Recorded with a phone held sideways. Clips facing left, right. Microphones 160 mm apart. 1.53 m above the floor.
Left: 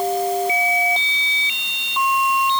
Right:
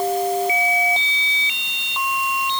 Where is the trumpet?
I don't hear a trumpet.